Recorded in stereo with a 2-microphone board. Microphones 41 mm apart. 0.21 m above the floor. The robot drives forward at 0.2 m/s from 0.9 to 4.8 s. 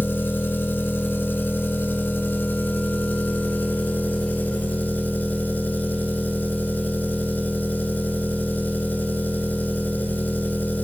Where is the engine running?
65° left (ahead or behind), 0.8 m; by 10.8 s 45° left (ahead or behind), 1.1 m.